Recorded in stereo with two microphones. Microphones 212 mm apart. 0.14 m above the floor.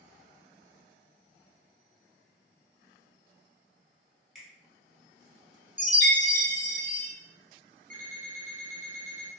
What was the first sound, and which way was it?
A finger snap, centre (ahead or behind).